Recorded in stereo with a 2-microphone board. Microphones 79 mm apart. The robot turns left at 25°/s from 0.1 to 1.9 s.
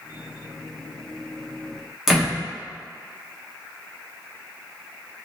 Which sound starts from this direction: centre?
A door slam, at 2.1 s.